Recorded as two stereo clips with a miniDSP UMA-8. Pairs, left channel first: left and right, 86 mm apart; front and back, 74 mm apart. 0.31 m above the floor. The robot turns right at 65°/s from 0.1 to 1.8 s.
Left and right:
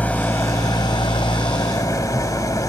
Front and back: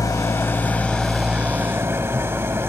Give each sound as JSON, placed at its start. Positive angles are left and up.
{"t": 0.0, "sound": "an engine running", "azimuth_deg": 20, "distance_m": 0.9}